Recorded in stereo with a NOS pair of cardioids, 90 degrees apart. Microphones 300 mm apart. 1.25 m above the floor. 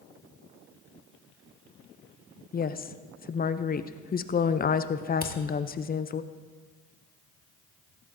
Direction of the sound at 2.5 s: 30° left.